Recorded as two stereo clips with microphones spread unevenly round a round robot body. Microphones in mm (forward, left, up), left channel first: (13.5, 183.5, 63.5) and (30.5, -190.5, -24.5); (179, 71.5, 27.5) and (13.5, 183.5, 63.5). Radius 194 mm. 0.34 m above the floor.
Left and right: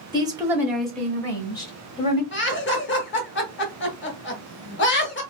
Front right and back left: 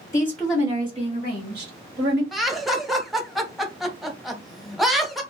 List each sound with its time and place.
0.1 s a woman speaking: 55° right, 0.9 m; by 2.2 s 175° left, 1.6 m
2.3 s laughter: 35° left, 0.9 m